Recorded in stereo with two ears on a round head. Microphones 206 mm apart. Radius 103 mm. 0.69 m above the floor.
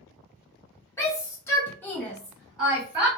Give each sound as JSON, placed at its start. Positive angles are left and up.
{"t": 1.0, "sound": "a shout", "side_deg": 10, "distance_m": 1.3}